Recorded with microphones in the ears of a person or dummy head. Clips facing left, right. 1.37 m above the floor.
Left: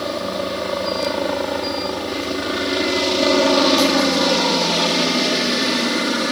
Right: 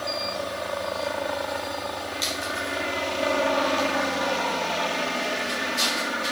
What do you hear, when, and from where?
0.0 s a helicopter: 60° left (ahead or behind)